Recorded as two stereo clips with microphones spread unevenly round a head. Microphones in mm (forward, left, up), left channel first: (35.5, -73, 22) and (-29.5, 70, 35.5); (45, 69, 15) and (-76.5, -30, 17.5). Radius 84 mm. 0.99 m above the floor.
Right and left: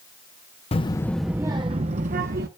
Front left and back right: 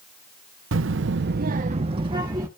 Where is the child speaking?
120° right, 0.7 m; by 2.5 s 150° left, 1.2 m.